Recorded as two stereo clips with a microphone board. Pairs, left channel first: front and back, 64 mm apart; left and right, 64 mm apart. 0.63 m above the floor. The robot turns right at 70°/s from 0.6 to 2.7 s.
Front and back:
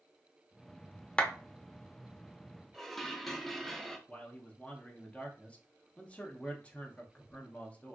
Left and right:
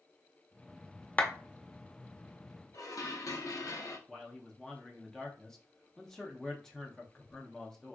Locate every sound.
1.2 s a clap: 55° left, 0.5 m; by 1.3 s 65° left, 0.5 m
2.7 s dishes clattering: 85° left, 0.5 m
4.1 s a man speaking: 25° left, 0.6 m